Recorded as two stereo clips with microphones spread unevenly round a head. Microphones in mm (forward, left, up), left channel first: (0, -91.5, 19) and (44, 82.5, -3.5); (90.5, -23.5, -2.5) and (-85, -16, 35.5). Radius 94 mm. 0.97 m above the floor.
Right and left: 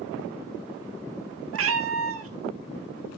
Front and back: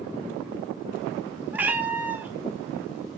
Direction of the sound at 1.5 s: 100° left.